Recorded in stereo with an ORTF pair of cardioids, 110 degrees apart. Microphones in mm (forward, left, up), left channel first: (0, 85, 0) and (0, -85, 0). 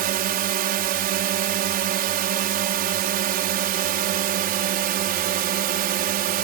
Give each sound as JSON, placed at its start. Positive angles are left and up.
{"t": 0.0, "sound": "a drone", "azimuth_deg": -60}